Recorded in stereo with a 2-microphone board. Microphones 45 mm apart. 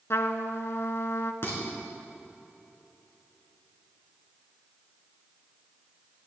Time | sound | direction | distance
0.1 | a trumpet | 65° left (ahead or behind) | 0.7 m
1.4 | dishes clattering | 55° left (ahead or behind) | 3.5 m